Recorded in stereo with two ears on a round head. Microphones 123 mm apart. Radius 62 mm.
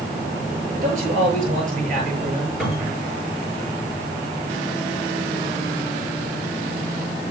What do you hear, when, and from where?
0.7 s a man speaking: 60° right (ahead or behind), 7 m
2.6 s a cupboard door: 5° right (ahead or behind), 6.5 m